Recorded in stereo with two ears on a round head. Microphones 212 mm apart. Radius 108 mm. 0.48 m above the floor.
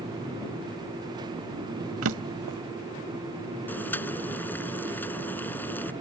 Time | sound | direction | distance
2.0 | a drawer | 70° right (ahead or behind) | ?
3.7 | boiling | 10° left (ahead or behind) | ?